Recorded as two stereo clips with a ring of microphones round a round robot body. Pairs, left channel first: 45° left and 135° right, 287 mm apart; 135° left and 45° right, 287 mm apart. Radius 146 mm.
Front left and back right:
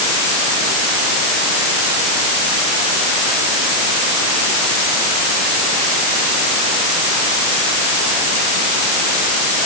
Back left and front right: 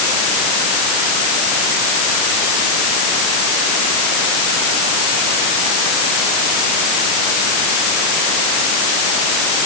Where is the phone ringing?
I don't hear a phone ringing.